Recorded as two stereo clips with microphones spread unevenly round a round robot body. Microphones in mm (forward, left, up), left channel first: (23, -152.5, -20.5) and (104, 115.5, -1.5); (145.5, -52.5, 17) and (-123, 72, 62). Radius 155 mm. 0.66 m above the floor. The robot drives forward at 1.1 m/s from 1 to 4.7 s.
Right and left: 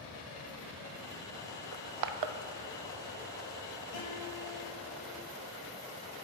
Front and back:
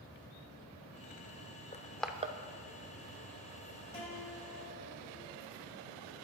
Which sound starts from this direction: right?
A guitar, at 3.9 s.